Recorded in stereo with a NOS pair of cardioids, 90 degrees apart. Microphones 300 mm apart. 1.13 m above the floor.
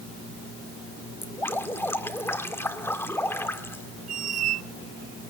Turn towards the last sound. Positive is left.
turn(degrees=-55)